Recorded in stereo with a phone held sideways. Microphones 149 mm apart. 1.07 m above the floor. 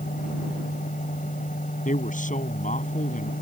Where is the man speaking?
60° left (ahead or behind).